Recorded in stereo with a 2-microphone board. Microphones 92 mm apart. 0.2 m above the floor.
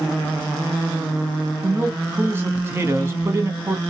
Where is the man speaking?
25° right (ahead or behind), 1.4 m.